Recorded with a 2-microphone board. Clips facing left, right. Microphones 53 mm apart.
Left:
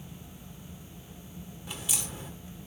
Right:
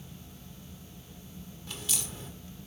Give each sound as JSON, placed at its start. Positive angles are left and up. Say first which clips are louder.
{"t": 1.7, "sound": "a crack", "louder": "left 1 dB", "side_deg": 15, "distance_m": 1.5}